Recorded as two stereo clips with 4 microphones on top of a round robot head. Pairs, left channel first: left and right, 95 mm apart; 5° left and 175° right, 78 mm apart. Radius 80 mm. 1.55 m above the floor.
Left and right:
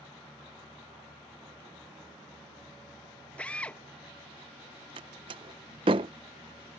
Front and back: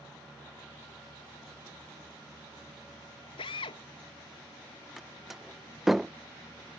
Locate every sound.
3.4 s a drill: 15° left
5.0 s a door slam: 85° right